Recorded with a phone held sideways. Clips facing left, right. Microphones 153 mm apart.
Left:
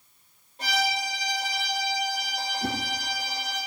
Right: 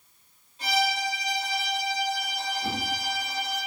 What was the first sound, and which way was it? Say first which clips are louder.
A violin: right 2 dB; 60° left (ahead or behind).